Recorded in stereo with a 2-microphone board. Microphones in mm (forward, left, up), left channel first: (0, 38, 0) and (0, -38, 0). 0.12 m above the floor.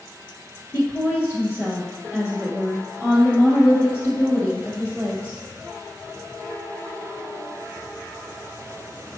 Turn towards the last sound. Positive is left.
turn(degrees=35)  # may be behind; listen again after turning